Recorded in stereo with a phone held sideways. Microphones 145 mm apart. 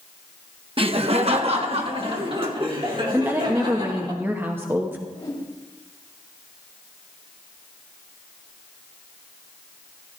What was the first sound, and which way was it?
Laughter, 40° right (ahead or behind).